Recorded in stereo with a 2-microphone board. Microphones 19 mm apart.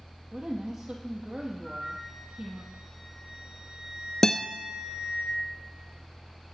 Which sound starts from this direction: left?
A guitar, at 4.2 s.